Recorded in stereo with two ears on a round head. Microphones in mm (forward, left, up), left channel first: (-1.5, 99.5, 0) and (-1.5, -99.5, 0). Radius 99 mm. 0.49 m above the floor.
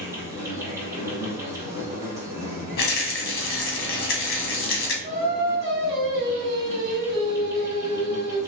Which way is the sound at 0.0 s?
15° right (ahead or behind).